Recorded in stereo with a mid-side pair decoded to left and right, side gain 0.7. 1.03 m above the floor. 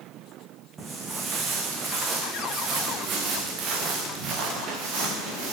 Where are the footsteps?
30° right, 3.5 m; by 5.5 s 55° right, 6 m.